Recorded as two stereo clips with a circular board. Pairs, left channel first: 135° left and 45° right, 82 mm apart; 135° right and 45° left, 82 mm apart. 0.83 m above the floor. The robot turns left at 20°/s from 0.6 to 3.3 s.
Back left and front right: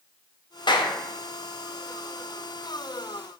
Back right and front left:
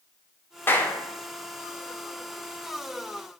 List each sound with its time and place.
0.7 s a clap: 160° left, 0.7 m; by 1.0 s 155° left, 0.7 m